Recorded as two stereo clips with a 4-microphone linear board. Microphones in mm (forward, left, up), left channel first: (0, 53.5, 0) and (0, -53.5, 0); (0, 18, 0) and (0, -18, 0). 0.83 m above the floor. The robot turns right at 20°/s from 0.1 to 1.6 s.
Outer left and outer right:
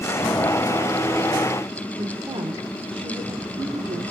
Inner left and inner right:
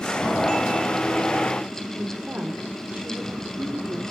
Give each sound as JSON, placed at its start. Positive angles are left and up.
{"t": 2.0, "sound": "a woman speaking", "side_deg": -55, "distance_m": 2.5}